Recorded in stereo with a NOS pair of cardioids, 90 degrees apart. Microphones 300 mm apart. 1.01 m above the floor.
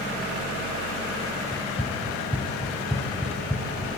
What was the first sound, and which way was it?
Running footsteps, 10° left.